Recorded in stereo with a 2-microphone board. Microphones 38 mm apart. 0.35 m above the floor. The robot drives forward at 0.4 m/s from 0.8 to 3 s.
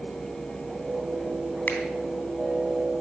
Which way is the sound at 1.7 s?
55° left (ahead or behind).